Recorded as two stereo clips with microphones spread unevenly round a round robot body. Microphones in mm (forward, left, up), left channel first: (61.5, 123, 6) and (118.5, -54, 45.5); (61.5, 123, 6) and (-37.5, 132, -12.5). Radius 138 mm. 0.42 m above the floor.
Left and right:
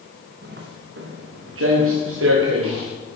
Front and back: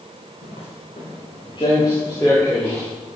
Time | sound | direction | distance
0.4 | footsteps | 45° right | 3 m